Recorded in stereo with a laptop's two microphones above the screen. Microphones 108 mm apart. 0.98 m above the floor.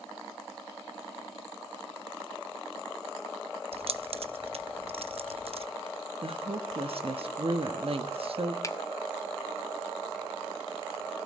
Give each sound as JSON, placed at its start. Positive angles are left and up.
{"t": 3.7, "sound": "keys jangling", "side_deg": -65, "distance_m": 0.7}
{"t": 6.2, "sound": "a woman speaking", "side_deg": -60, "distance_m": 1.2}
{"t": 8.6, "sound": "a finger snap", "side_deg": 30, "distance_m": 1.1}